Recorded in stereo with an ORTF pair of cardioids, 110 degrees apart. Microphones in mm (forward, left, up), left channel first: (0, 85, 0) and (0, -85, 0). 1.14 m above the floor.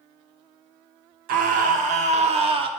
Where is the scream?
70° right, 1.0 m; by 2.7 s 35° right, 1.3 m.